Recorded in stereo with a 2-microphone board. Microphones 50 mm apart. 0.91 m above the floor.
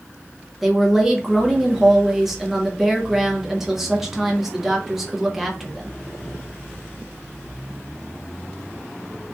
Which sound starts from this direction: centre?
A woman speaking, at 0.6 s.